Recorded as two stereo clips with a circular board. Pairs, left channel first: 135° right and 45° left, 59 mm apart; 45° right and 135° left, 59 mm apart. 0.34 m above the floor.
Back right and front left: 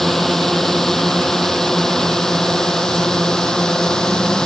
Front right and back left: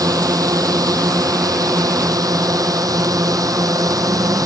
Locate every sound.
0.0 s a drone: 140° left; by 4.5 s 145° left